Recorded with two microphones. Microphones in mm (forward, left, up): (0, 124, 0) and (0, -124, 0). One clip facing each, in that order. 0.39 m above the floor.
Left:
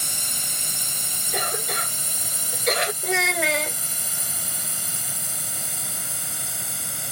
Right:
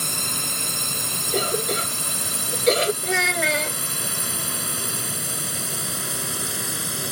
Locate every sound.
0.0 s a drone: 70° right (ahead or behind); by 7.1 s 75° right (ahead or behind)
1.3 s a cough: 40° right (ahead or behind)
3.0 s a child speaking: centre (ahead or behind)